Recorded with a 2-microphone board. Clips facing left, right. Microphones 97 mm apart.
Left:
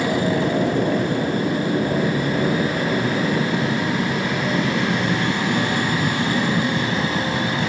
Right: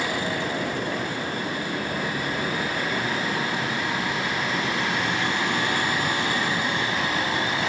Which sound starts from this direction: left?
An aircraft, at 0.0 s.